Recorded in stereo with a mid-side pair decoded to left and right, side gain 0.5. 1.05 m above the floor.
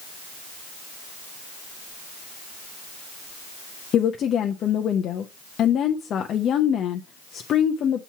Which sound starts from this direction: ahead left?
A woman speaking, at 3.9 s.